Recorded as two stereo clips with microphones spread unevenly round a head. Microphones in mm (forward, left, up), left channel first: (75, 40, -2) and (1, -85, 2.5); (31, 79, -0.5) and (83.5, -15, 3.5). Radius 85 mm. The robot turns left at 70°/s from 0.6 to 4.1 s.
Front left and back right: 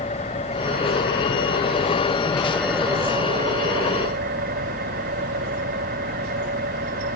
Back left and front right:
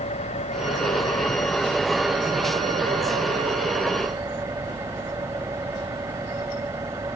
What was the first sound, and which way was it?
An engine running, 115° left.